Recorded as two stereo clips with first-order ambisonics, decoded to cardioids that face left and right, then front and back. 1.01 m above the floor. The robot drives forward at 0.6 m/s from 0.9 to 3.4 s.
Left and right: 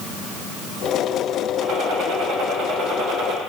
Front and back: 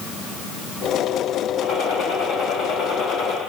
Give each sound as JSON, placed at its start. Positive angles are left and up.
{"t": 1.6, "sound": "a gunshot", "azimuth_deg": -45, "distance_m": 3.0}